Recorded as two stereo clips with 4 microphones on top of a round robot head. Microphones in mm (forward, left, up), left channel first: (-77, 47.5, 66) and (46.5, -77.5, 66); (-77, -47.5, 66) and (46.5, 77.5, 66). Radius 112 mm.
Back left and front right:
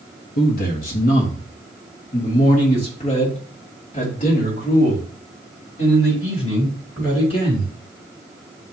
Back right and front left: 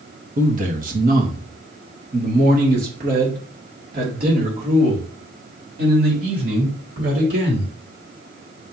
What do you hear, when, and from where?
0.4 s a man speaking: 95° left, 1.4 m; by 7.7 s 75° left, 5.5 m